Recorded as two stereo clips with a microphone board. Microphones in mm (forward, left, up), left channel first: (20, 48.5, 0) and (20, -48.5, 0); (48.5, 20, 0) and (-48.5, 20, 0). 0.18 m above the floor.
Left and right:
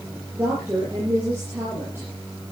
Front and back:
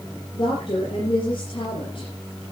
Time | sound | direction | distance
0.3 | a woman speaking | 25° right | 5 m